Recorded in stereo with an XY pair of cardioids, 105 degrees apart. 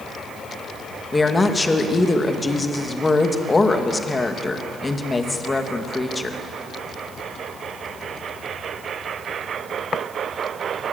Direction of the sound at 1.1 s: 20° left.